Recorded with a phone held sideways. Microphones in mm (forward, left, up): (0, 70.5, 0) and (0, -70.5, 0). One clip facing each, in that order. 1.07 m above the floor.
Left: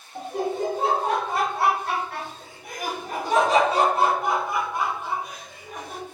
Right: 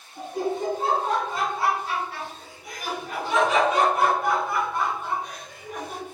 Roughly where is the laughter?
Left.